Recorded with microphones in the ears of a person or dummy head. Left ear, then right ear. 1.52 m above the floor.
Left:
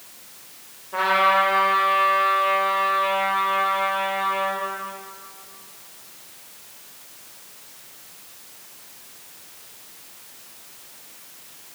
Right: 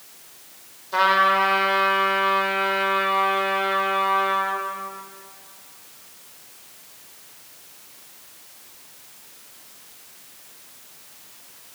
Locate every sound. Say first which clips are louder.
0.9 s a trumpet: right 1 dB; 80° right, 4.5 m